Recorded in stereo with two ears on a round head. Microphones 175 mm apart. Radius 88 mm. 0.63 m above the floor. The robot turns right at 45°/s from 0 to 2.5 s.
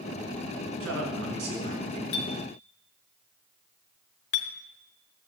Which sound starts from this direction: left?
A clink, at 2.1 s.